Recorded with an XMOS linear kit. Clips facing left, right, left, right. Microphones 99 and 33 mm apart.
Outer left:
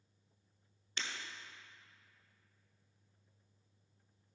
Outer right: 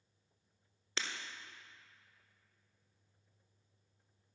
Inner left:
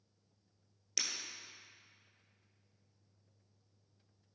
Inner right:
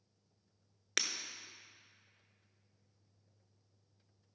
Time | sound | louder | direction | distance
1.0 | breaking glass | outer right 2 dB, inner right 4 dB | 80° right | 1.0 m